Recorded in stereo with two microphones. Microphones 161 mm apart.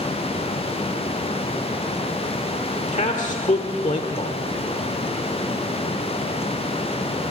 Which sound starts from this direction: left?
A man speaking, at 2.9 s.